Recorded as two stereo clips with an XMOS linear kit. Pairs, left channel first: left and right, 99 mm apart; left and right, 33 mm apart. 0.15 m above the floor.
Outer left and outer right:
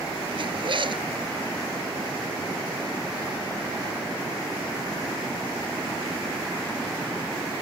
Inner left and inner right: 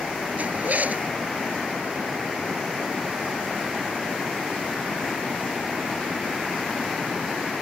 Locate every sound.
0.4 s a zipper: 55° right (ahead or behind)